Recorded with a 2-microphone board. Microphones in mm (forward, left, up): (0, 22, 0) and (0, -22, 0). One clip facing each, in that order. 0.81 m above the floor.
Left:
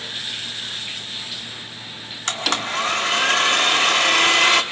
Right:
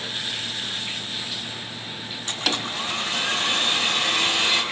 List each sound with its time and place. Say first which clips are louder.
2.3 s a blender: left 4 dB; 65° left (ahead or behind), 1.7 m